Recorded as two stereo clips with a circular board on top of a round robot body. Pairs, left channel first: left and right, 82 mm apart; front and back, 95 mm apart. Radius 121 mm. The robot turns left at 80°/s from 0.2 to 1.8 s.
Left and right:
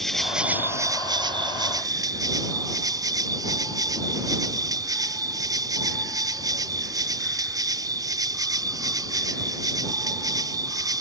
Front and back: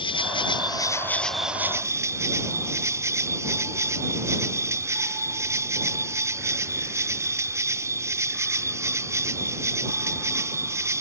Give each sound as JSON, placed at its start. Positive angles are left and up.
{"t": 0.0, "sound": "an insect", "azimuth_deg": 5}